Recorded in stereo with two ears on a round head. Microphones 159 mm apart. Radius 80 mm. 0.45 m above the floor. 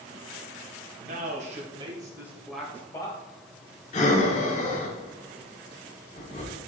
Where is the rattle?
I don't hear a rattle.